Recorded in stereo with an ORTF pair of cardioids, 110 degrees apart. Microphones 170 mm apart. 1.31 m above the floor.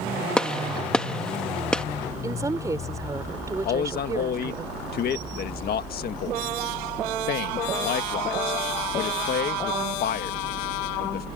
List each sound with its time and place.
0.4 s a gunshot: 5° left
2.2 s a woman speaking: 20° right
3.6 s a man speaking: 65° left